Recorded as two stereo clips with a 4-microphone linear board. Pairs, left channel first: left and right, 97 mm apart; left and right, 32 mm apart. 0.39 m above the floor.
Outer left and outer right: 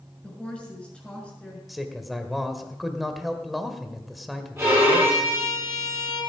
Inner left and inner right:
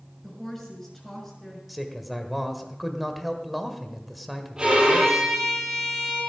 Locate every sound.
0.2 s a woman speaking: 10° left (ahead or behind), 5.5 m
1.7 s a man speaking: centre (ahead or behind), 1.5 m
4.6 s a violin: 30° right (ahead or behind), 9.5 m